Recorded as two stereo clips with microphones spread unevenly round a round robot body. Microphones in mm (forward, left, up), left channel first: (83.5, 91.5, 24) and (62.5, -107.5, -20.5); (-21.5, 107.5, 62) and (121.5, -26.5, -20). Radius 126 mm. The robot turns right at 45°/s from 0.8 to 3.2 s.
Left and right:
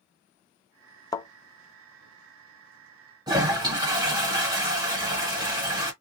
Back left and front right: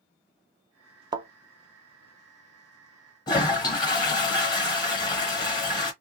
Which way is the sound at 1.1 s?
50° left.